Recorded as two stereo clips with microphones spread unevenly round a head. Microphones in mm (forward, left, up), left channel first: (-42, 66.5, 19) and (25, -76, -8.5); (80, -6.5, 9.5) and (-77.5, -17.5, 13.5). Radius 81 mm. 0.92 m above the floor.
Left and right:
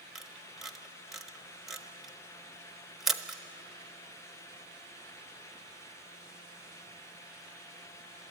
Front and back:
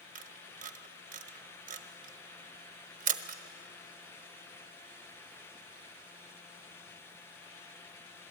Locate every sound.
0.1 s a camera shutter: 145° right, 0.9 m